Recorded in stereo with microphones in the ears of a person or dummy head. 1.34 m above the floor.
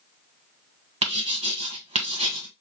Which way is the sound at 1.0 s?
35° right (ahead or behind).